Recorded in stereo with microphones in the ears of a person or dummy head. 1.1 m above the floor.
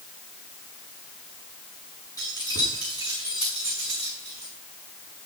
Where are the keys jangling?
20° left (ahead or behind), 7.5 m; by 4.5 s 35° left (ahead or behind), 6.5 m.